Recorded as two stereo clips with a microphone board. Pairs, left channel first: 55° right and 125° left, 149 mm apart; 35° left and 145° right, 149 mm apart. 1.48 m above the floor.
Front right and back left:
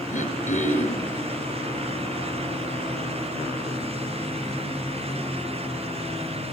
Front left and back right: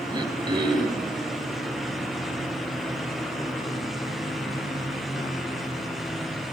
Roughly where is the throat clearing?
Right.